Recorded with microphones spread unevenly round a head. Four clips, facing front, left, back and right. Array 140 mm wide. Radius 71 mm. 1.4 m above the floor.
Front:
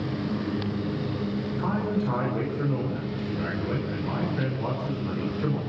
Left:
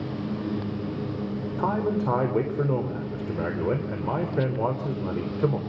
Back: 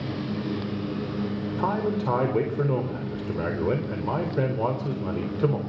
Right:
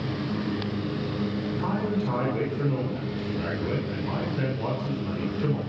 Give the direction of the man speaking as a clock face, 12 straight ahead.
8 o'clock.